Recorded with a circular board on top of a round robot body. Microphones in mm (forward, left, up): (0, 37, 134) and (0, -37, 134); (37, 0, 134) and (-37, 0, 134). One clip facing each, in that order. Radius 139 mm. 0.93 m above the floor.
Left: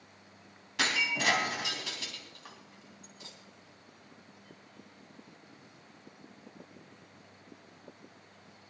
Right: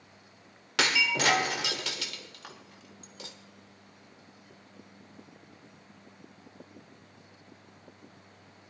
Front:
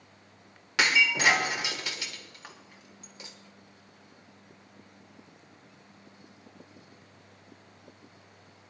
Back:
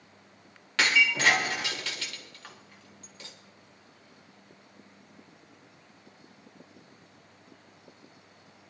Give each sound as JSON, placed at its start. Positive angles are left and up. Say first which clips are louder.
{"t": 0.8, "sound": "breaking glass", "louder": "right 4 dB, even", "azimuth_deg": -80, "distance_m": 1.3}